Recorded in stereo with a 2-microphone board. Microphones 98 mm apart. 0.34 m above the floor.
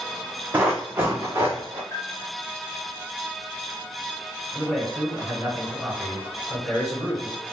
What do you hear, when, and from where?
0.5 s running footsteps: 15° right (ahead or behind), 1.0 m; by 1.8 s 25° right (ahead or behind), 1.6 m
1.9 s a bell: 35° left (ahead or behind), 1.4 m
4.5 s a man speaking: 5° left (ahead or behind), 1.7 m